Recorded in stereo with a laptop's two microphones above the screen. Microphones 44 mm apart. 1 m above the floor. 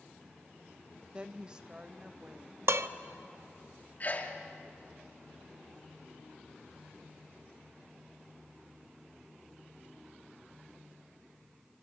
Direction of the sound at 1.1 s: 25° right (ahead or behind).